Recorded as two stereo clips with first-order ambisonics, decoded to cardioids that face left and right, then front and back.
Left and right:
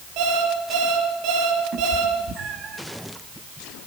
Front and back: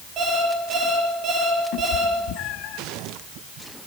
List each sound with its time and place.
0.2 s an alarm clock: 130° right, 8.5 m
1.7 s a cat meowing: 30° right, 3 m